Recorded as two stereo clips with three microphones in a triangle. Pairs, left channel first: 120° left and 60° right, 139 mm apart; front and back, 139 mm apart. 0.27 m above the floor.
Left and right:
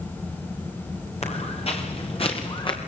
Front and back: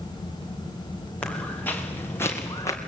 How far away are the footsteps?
About 5.5 m.